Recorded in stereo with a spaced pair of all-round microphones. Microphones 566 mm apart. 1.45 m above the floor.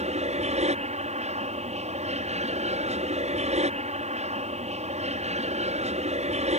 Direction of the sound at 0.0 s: 10° right (ahead or behind).